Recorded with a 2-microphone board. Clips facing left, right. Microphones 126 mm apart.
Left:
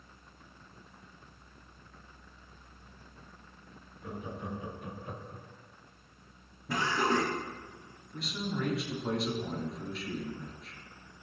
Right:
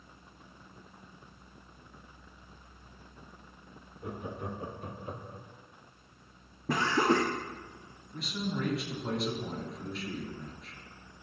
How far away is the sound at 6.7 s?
About 0.9 m.